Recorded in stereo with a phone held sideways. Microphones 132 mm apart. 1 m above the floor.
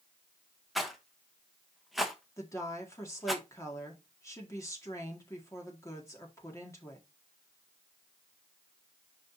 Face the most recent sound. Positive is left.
turn(degrees=25)  # may be behind; listen again after turning